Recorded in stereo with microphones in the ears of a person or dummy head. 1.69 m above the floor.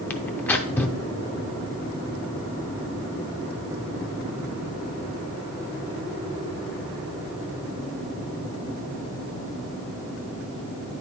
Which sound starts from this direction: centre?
Tearing paper, at 0.1 s.